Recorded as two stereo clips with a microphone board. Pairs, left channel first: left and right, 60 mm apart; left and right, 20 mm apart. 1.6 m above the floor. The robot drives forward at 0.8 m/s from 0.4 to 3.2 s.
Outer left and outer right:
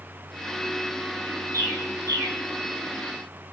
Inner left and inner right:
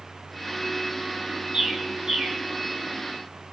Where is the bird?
65° right (ahead or behind), 7 m; by 2.4 s 60° right (ahead or behind), 7.5 m.